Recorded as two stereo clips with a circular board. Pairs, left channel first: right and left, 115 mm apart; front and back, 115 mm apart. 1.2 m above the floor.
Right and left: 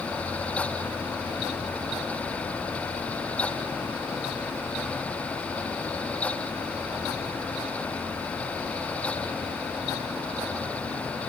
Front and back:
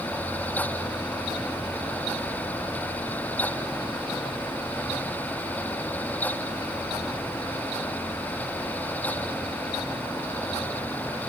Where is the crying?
No crying in this recording.